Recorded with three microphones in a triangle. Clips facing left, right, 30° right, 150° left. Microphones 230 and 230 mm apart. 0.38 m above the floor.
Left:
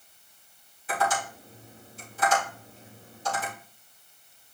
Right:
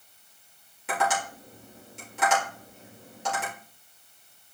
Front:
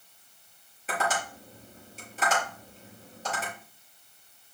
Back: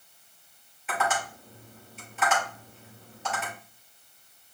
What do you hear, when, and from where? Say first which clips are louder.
0.9 s tapping: even, back 1 dB; 80° right, 5.5 m